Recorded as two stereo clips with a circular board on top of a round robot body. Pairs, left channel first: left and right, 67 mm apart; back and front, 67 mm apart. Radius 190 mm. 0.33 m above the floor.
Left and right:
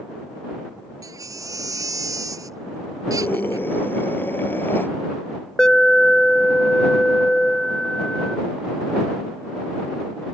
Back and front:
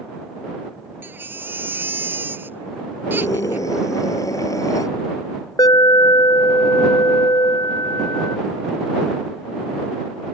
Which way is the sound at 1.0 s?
60° right.